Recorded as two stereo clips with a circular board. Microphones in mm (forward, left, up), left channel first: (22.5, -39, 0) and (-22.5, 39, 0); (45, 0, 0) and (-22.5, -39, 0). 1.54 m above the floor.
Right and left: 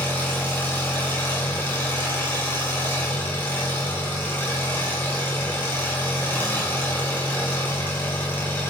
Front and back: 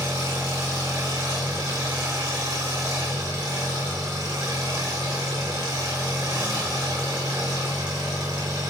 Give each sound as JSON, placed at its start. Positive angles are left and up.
{"t": 0.0, "sound": "an engine running", "azimuth_deg": -130, "distance_m": 3.5}